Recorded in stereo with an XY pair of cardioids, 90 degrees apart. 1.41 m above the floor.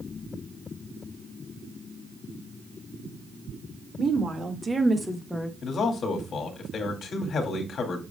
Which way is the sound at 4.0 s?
50° right.